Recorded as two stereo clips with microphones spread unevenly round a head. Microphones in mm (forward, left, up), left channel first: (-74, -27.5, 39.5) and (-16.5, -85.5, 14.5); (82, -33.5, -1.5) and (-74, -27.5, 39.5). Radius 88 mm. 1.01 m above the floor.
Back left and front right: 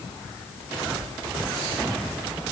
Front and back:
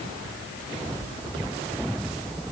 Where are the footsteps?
I don't hear footsteps.